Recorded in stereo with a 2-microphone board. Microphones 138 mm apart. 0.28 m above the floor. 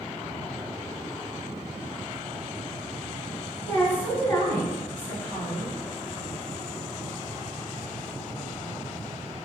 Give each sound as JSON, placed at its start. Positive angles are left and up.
{"t": 3.7, "sound": "a woman speaking", "side_deg": 15, "distance_m": 1.8}